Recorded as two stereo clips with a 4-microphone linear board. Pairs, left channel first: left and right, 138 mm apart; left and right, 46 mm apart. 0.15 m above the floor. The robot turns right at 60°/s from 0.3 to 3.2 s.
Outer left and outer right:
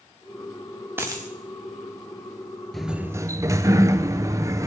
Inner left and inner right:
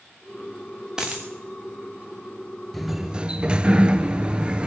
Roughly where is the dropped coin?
Centre.